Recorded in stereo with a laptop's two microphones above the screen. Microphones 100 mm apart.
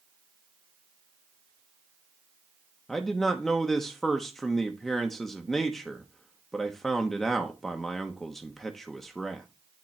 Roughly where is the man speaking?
Centre.